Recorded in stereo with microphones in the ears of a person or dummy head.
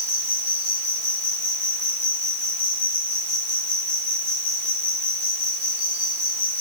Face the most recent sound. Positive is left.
turn(degrees=-10)  # may be behind; listen again after turning